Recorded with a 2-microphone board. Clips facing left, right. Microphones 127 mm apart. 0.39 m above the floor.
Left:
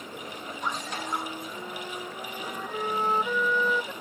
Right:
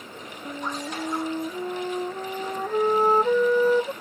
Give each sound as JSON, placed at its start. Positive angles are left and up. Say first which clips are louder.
{"t": 0.5, "sound": "a flute", "louder": "right 3 dB", "side_deg": -40}